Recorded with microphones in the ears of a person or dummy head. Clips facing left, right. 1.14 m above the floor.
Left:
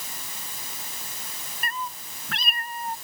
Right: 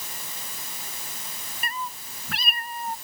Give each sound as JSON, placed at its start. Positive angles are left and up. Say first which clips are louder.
{"t": 1.6, "sound": "a cat meowing", "louder": "even", "side_deg": 0}